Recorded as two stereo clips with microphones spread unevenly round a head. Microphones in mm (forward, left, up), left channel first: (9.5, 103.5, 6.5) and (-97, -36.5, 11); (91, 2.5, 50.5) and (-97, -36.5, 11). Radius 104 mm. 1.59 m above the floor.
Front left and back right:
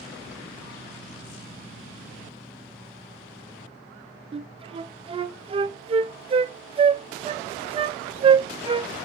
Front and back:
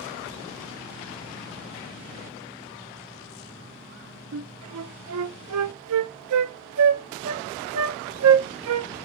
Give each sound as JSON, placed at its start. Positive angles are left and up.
{"t": 4.3, "sound": "a flute", "azimuth_deg": 175, "distance_m": 0.5}